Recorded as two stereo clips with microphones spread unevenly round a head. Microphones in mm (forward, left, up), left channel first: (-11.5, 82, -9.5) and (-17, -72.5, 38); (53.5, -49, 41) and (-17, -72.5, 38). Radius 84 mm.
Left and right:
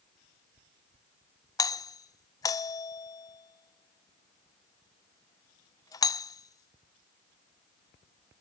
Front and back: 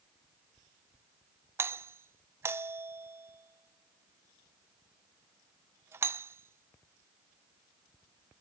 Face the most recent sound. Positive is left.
turn(degrees=145)